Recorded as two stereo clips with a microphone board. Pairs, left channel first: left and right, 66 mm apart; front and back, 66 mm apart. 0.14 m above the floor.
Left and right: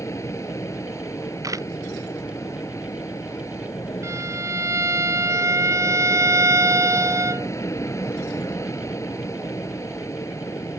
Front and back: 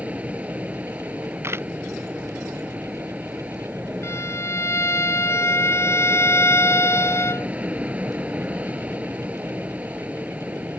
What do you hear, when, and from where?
0.0 s an aircraft: 115° left
1.4 s a camera shutter: 125° right
4.0 s a violin: 45° right